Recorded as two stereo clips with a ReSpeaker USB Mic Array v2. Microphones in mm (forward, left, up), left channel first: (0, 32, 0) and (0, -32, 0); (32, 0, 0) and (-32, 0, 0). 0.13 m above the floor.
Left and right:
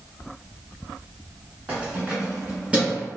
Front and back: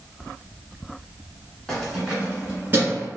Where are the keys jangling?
70° right, 1.1 m; by 3.1 s 155° right, 1.5 m.